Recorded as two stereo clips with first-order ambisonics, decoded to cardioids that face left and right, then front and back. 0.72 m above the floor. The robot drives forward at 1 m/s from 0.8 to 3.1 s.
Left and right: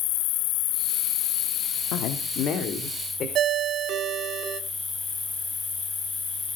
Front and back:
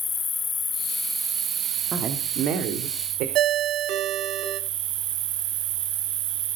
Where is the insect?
70° left, 0.8 m; by 6.6 s 160° left, 2 m.